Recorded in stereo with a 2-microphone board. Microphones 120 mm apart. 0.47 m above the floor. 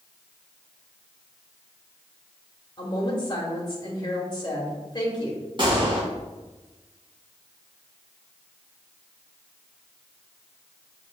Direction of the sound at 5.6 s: 45° right (ahead or behind).